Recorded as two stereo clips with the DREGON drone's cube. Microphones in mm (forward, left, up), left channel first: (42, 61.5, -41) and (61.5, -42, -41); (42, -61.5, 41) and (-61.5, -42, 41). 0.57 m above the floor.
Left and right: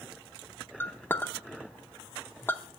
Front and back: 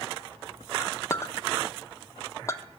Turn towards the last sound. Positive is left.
turn(degrees=40)